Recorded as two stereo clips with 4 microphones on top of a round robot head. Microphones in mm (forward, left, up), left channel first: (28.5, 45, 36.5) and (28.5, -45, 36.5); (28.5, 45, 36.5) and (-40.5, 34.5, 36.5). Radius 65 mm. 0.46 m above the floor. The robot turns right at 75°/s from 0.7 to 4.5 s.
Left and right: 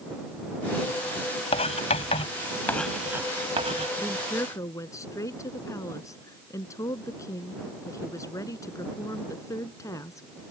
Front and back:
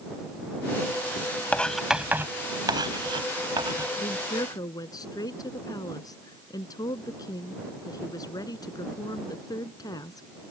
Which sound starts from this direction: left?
Writing, at 1.5 s.